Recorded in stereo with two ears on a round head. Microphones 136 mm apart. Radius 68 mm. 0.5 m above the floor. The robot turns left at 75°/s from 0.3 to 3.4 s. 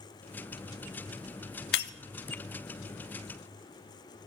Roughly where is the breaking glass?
Left.